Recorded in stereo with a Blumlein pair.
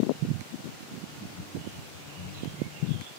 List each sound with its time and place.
1.0 s laughter: 30° left, 3.5 m